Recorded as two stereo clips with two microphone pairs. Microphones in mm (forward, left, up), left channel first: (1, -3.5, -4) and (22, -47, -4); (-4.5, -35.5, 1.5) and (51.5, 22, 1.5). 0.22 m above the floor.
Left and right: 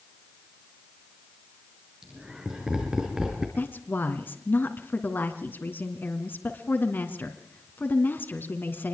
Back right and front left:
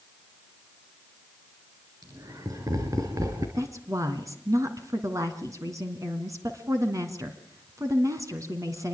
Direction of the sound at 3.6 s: 80° left.